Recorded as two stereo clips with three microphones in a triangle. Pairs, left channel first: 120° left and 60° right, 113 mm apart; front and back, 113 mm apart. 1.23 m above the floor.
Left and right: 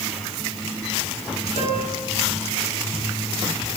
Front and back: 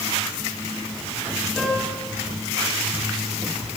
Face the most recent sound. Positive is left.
turn(degrees=85)